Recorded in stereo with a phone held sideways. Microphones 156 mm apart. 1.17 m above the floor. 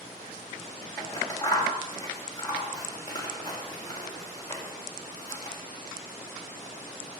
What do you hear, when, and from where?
1.0 s scissors: 25° left (ahead or behind), 2 m